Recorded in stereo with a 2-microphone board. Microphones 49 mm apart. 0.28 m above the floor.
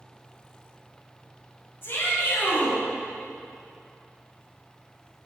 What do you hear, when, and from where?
1.8 s a shout: 50° left (ahead or behind), 2.5 m